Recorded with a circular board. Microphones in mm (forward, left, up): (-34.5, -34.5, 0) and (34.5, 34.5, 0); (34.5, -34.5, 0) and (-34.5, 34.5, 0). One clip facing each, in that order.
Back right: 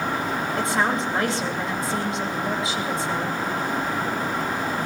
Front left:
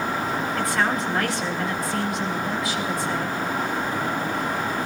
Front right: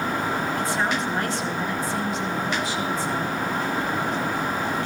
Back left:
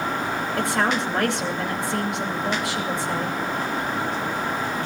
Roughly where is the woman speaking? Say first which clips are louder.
Back right 2 dB, back left 2 dB; behind.